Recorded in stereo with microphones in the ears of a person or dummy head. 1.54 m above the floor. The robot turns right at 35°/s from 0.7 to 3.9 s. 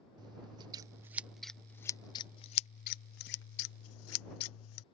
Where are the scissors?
25° right; by 4.8 s 85° left.